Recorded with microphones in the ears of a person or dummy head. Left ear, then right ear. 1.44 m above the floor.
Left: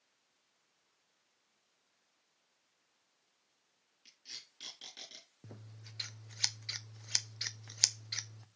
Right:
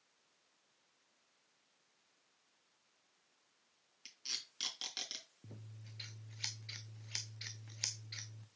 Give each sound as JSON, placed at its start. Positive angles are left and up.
{"t": 4.0, "sound": "tape being pulled", "side_deg": -45, "distance_m": 3.5}
{"t": 5.4, "sound": "scissors", "side_deg": 40, "distance_m": 0.6}